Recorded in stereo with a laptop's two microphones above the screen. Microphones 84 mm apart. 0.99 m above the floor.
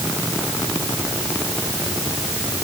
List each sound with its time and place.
Only background noise.